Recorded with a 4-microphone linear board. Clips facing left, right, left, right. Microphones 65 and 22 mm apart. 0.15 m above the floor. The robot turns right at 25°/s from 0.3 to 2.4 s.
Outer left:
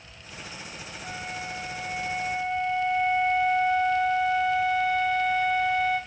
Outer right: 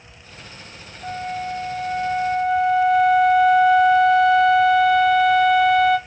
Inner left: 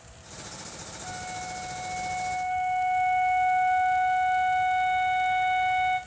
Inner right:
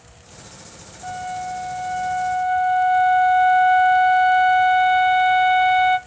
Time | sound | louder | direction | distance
1.0 | a flute | outer right 9 dB, inner right 9 dB | 105° right | 1.0 m